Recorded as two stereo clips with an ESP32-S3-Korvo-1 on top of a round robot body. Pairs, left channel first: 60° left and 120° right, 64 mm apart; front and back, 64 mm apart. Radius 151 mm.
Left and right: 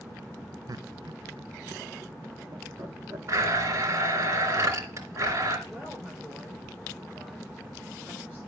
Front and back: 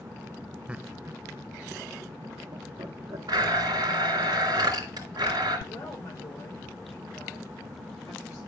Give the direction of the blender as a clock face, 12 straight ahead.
5 o'clock.